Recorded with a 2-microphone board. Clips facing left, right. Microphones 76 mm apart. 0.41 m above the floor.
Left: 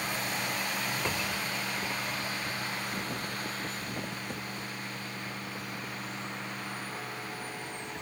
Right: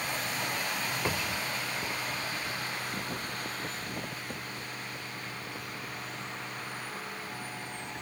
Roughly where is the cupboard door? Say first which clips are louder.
Even; centre.